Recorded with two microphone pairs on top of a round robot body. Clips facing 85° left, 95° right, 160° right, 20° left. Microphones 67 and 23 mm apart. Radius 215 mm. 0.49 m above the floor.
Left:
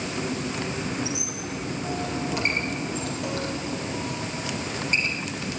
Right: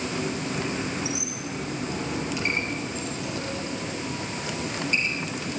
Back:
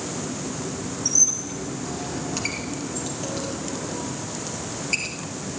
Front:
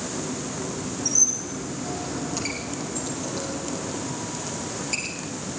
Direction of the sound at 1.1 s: 130° left.